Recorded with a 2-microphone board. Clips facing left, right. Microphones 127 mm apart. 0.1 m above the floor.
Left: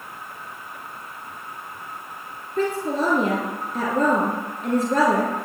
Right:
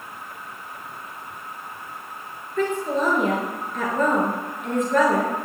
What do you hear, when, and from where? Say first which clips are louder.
2.6 s a woman speaking: even; 40° left (ahead or behind), 1.6 m